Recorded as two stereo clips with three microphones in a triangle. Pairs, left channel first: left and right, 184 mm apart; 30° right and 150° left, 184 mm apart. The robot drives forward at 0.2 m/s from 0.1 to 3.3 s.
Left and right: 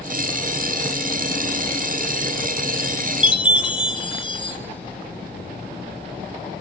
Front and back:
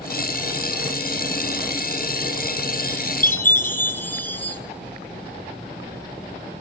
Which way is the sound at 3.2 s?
45° left.